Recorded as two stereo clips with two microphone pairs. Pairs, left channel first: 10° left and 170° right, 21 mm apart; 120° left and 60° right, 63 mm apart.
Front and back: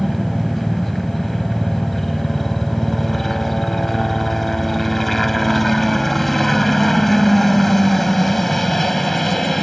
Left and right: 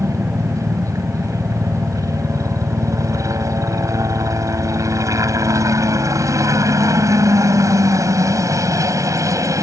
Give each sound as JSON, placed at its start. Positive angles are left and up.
{"t": 0.0, "sound": "a helicopter", "azimuth_deg": -70}